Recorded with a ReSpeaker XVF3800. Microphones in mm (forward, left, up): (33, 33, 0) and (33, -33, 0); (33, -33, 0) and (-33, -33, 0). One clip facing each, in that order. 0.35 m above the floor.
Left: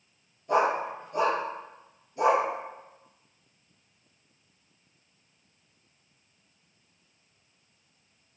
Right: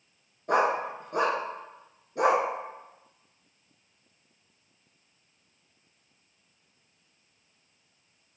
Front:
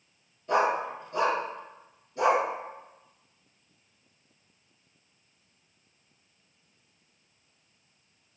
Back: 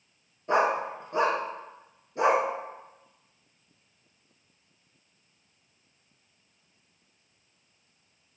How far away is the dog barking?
About 1.6 m.